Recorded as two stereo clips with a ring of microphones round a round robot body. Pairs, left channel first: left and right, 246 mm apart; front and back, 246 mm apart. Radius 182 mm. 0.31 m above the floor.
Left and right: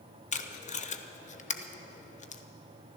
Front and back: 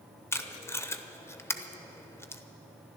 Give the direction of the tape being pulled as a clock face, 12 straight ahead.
10 o'clock.